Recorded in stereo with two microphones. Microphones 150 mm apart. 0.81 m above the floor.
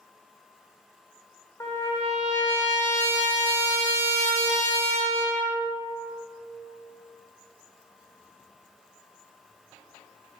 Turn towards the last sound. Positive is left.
turn(degrees=20)  # may be behind; listen again after turning